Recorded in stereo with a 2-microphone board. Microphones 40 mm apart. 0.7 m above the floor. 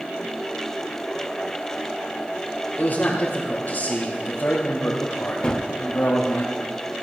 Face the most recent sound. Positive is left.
turn(degrees=20)  # may be behind; listen again after turning